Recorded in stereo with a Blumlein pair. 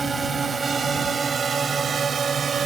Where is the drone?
15° right; by 2.7 s 20° right.